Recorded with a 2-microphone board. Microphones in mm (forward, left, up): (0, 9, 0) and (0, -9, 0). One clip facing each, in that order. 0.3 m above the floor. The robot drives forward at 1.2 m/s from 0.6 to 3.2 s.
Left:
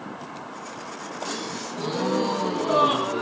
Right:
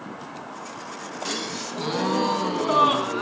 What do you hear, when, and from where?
1.2 s a gasp: 30° right (ahead or behind), 1.4 m; by 3.2 s 15° right (ahead or behind), 3 m